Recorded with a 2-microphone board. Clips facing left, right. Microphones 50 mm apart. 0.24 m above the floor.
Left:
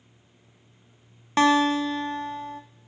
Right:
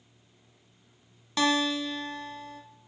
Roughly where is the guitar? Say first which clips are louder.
Left 7 dB; left.